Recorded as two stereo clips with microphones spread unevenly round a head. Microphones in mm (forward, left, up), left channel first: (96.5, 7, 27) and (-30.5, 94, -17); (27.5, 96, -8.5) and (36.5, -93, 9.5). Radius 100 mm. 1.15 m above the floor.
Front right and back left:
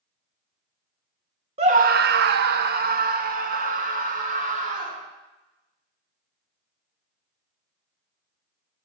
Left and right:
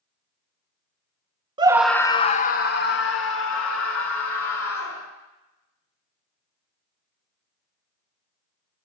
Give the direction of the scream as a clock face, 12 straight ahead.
5 o'clock.